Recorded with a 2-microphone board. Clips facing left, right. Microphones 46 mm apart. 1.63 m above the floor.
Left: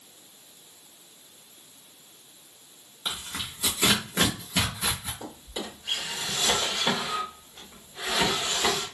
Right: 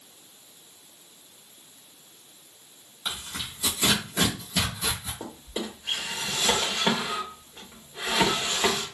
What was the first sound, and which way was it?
Tearing paper, 25° left (ahead or behind).